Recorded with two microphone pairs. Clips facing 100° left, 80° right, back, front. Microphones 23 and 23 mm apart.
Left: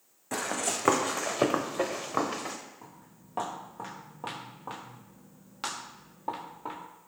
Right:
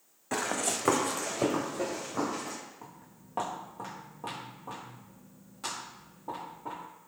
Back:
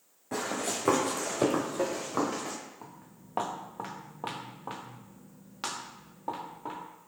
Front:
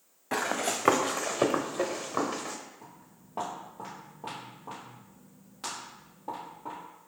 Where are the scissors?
I don't hear scissors.